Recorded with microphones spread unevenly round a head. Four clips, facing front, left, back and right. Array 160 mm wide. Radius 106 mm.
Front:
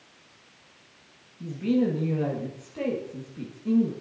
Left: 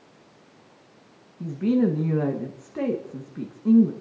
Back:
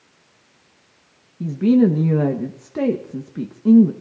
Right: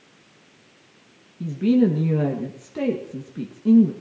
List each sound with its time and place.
1.4 s a woman speaking: 165° left, 1.6 m